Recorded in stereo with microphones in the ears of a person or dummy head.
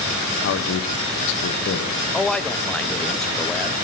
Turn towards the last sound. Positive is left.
turn(degrees=5)  # may be behind; listen again after turning